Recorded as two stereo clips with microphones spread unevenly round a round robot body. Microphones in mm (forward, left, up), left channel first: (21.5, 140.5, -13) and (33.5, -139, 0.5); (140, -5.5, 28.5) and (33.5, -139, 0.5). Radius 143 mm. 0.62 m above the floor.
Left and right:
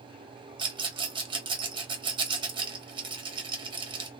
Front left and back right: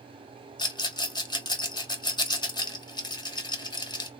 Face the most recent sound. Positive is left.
turn(degrees=-15)